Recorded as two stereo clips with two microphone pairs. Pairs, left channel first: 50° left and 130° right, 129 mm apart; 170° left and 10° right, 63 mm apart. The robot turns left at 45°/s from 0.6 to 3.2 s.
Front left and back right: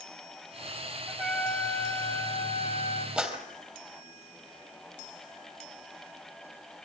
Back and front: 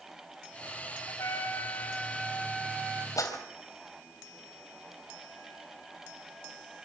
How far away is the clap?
About 3 m.